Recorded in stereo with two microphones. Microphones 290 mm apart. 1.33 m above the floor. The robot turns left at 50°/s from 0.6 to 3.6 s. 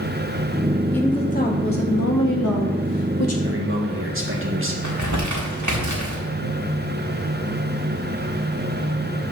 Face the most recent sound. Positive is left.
turn(degrees=-70)  # may be behind; listen again after turning